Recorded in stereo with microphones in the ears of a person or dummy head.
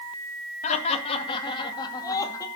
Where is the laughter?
40° left (ahead or behind), 2.0 m; by 2.5 s 20° left (ahead or behind), 2.5 m.